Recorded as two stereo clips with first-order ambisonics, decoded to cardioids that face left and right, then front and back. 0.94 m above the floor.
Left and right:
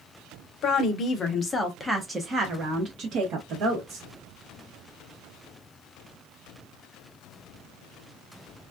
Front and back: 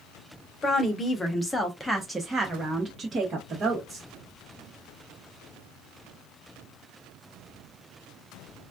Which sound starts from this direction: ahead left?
A woman speaking, at 0.6 s.